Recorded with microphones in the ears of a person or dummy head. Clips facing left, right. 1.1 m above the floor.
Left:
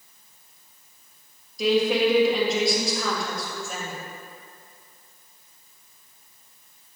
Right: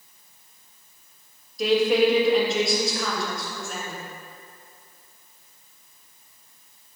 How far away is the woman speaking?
About 1.2 m.